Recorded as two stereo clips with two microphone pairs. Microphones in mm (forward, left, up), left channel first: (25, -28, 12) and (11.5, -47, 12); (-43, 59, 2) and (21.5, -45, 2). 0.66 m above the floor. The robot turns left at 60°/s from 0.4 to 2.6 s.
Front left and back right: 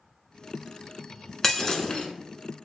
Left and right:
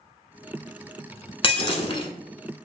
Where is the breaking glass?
130° left, 0.8 m; by 2.1 s 90° left, 0.8 m.